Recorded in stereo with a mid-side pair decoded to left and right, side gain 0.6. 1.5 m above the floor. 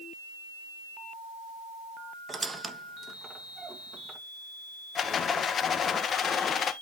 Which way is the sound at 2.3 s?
20° right.